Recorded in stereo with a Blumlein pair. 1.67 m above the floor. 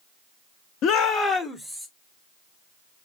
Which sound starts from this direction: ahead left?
A shout, at 0.8 s.